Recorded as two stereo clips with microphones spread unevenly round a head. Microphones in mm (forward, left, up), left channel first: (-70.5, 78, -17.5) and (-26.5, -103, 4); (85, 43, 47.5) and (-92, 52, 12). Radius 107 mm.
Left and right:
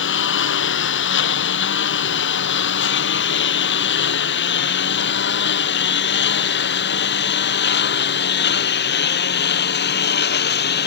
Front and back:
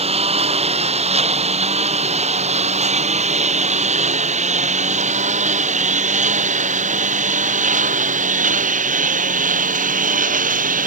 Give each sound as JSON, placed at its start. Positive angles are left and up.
{"t": 0.0, "sound": "a lawn mower", "azimuth_deg": 120}